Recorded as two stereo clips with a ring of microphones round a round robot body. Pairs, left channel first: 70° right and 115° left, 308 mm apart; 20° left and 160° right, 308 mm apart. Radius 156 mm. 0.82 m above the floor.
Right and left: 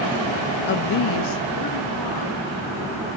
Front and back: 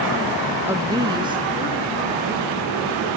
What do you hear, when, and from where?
0.7 s a woman speaking: 80° right, 0.6 m; by 3.1 s 85° right, 4 m